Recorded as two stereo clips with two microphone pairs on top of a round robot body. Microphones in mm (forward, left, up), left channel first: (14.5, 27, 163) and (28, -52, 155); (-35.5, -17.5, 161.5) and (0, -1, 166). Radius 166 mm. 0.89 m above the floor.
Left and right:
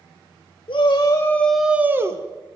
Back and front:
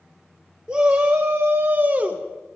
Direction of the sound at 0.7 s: 80° left.